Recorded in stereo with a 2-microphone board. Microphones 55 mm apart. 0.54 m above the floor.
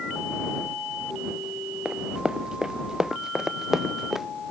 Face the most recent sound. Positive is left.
turn(degrees=-5)  # may be behind; listen again after turning